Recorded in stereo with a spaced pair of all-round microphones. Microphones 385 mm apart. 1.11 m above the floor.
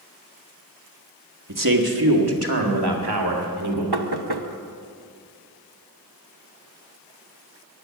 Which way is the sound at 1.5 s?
50° right (ahead or behind).